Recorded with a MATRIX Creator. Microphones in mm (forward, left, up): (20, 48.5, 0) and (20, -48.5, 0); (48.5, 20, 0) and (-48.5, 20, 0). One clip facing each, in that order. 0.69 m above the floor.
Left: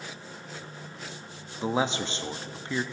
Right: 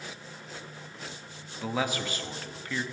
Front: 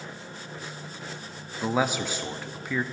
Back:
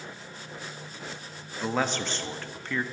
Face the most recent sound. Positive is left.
turn(degrees=70)